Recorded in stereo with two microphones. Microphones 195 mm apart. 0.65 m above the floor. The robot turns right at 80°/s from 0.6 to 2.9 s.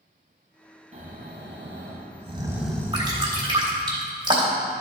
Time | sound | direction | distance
0.9 | snoring | 140° right | 1.6 m
2.9 | dripping | 30° right (ahead or behind) | 3 m